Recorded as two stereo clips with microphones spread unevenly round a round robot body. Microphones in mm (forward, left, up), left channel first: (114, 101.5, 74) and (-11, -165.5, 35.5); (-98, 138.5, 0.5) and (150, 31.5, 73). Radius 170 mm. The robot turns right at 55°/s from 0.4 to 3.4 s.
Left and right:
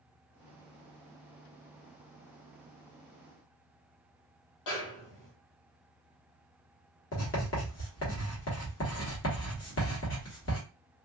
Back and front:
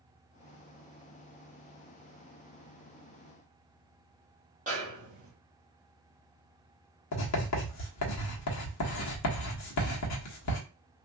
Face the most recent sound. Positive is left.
turn(degrees=120)